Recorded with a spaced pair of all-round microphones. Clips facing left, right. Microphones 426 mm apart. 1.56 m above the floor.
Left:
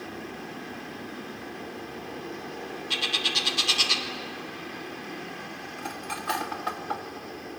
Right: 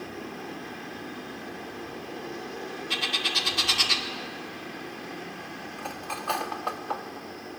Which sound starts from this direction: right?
A bird, at 2.9 s.